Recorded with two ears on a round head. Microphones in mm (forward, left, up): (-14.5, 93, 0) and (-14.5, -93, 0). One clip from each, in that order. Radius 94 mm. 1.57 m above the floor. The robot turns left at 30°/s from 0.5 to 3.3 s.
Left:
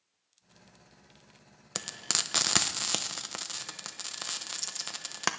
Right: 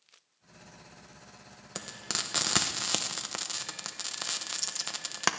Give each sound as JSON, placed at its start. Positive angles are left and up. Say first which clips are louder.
{"t": 1.8, "sound": "frying", "louder": "left 3 dB", "side_deg": 25, "distance_m": 0.7}